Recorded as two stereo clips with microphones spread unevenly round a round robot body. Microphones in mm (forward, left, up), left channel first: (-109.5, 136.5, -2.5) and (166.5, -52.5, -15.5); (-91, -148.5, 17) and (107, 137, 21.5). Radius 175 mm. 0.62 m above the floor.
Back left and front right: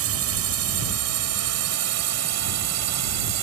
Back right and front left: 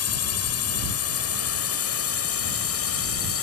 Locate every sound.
0.0 s a drone: 80° right; by 3.4 s 75° right